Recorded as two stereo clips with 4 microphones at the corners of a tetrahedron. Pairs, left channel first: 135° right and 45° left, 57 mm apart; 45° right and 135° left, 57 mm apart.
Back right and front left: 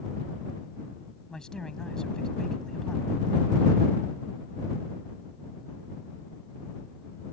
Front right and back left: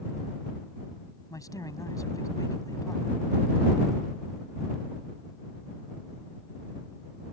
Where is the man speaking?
55° right.